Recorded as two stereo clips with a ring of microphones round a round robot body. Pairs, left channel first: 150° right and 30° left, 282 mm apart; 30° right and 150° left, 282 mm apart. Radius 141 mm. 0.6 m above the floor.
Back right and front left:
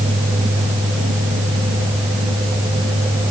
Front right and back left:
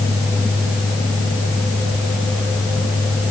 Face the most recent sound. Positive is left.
No sound to turn to.